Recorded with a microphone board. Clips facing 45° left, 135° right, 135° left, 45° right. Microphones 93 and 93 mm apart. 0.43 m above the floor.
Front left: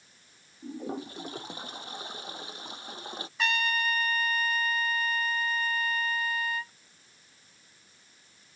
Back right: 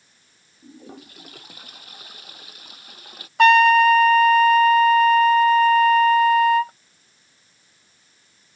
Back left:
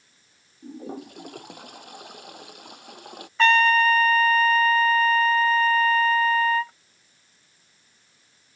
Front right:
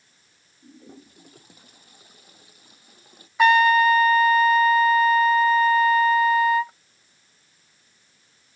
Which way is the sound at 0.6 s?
110° left.